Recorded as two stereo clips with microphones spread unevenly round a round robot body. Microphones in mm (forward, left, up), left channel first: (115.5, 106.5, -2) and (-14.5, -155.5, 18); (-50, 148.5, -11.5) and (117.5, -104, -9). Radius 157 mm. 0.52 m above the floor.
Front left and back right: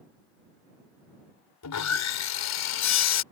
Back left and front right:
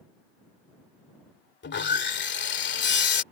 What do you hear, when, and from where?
1.6 s sawing: 75° left